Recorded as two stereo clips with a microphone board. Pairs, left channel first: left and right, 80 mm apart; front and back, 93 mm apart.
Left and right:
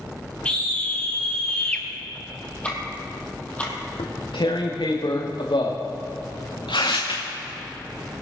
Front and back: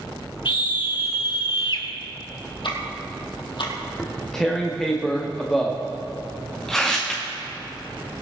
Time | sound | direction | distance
0.5 | a scream | 15° left | 2 m
2.6 | ticking | 15° left | 3 m
4.0 | tearing paper | 85° left | 3 m